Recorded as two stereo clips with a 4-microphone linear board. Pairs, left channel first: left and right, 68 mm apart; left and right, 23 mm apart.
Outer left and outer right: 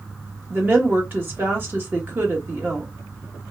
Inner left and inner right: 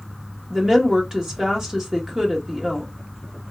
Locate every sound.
0.5 s a woman speaking: 35° right (ahead or behind), 1.5 m